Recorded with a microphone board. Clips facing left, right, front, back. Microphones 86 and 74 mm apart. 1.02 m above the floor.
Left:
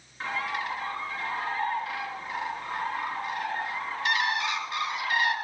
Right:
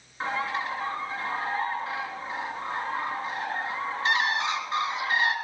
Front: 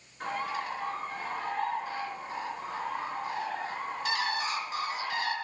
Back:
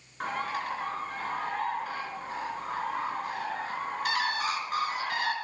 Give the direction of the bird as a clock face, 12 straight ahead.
5 o'clock.